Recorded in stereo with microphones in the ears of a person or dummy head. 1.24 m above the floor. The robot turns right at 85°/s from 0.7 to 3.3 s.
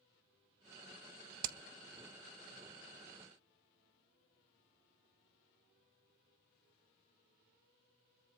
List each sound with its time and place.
1.4 s hammering: 65° right (ahead or behind), 0.7 m; by 1.6 s 70° right (ahead or behind), 0.7 m